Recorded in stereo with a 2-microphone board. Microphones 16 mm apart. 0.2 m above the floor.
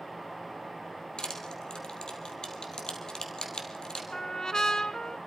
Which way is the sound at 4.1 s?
50° left (ahead or behind).